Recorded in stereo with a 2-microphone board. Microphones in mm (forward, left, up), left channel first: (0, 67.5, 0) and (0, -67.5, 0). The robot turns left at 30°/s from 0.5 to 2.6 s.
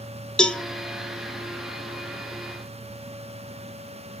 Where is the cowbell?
5° left (ahead or behind), 0.6 m.